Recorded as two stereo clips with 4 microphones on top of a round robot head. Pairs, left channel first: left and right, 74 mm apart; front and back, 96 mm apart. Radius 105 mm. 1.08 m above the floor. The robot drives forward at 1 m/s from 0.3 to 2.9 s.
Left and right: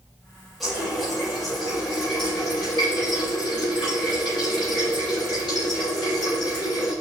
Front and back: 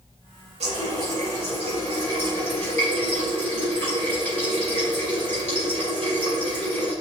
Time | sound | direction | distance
0.6 | a running tap | straight behind | 4 m